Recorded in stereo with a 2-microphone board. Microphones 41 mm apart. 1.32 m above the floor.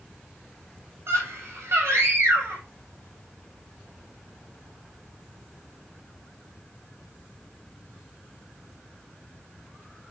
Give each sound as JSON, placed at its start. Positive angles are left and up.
{"t": 1.1, "sound": "a scream", "side_deg": -85, "distance_m": 6.0}